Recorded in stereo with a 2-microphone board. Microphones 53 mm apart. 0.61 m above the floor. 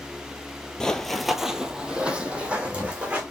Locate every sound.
0.8 s running footsteps: 15° left (ahead or behind), 0.6 m; by 3.2 s 25° right (ahead or behind), 1.7 m